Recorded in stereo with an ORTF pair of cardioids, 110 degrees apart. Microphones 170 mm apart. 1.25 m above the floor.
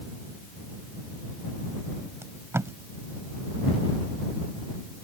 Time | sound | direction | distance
2.2 | tape being pulled | 15° right | ?